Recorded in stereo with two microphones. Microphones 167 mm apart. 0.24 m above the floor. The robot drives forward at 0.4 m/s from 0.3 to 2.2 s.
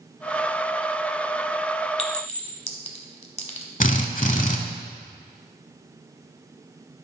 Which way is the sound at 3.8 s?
50° left (ahead or behind).